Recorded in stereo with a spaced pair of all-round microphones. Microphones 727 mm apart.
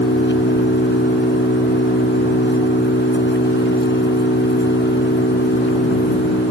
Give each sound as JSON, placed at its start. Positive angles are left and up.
{"t": 0.0, "sound": "an engine running", "side_deg": 15}